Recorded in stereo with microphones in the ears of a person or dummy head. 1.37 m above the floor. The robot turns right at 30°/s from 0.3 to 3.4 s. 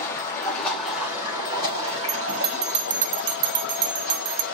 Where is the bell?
170° right, 0.6 m; by 4.4 s 130° right, 0.6 m.